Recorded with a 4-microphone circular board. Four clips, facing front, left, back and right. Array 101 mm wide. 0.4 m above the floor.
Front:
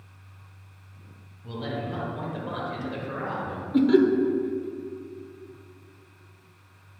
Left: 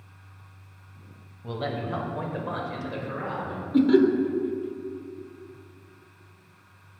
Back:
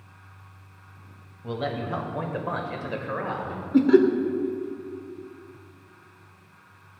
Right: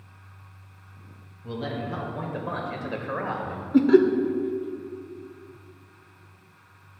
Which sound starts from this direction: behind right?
Laughter, at 3.7 s.